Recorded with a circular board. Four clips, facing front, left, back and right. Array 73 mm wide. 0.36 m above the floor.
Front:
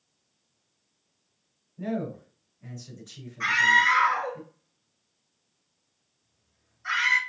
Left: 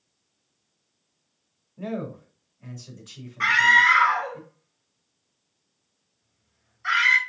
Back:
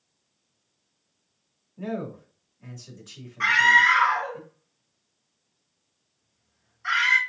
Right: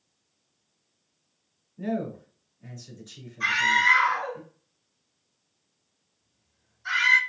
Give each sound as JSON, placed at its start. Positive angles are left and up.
{"t": 1.8, "sound": "a man speaking", "azimuth_deg": 125, "distance_m": 3.5}
{"t": 3.4, "sound": "a scream", "azimuth_deg": 120, "distance_m": 3.0}